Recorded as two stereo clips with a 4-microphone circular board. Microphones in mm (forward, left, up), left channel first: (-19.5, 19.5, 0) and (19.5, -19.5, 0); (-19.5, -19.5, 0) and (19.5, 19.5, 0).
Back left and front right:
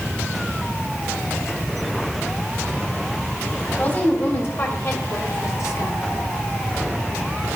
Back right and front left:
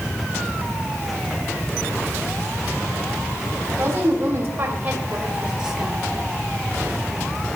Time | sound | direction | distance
3.7 | a woman speaking | 90° left | 4.5 m